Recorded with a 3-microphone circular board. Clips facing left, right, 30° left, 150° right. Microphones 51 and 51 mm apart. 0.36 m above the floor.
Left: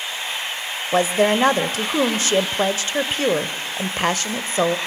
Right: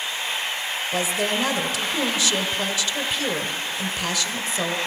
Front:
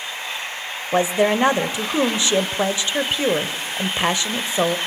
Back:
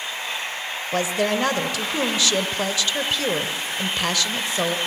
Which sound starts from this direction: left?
A woman speaking, at 0.9 s.